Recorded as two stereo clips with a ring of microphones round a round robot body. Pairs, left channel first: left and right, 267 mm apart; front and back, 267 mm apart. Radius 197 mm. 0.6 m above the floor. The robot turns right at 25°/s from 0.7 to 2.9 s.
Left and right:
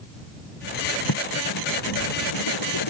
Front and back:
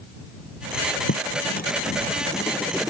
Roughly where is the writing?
Ahead left.